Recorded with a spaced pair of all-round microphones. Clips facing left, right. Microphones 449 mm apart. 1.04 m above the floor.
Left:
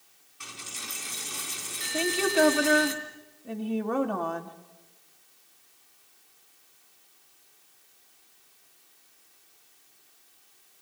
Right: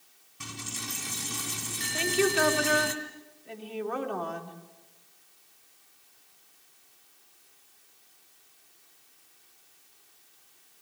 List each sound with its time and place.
0.4 s a dropped coin: 60° right (ahead or behind), 3 m
1.9 s a woman speaking: 65° left (ahead or behind), 2 m